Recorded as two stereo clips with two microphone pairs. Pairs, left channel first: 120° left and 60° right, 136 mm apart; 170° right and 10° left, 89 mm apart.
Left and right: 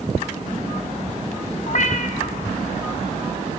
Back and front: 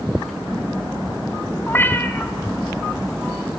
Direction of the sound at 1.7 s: 120° left.